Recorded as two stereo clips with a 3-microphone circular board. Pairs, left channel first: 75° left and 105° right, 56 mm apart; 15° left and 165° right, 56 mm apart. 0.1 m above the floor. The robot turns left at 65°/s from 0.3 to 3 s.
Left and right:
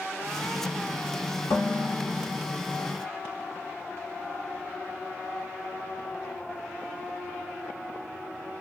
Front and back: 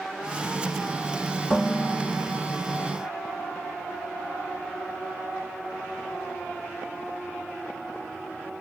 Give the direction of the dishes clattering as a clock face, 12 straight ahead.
9 o'clock.